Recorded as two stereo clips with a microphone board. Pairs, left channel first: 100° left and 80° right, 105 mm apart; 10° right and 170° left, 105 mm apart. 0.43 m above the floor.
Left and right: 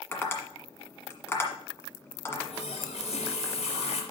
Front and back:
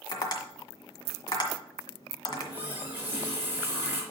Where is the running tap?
100° left, 3.5 m.